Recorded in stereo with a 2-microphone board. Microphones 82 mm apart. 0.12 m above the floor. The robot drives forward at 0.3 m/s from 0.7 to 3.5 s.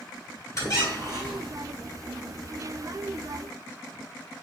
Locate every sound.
0.6 s a squeak: 35° left (ahead or behind), 1.4 m; by 1.6 s 30° left (ahead or behind), 1.6 m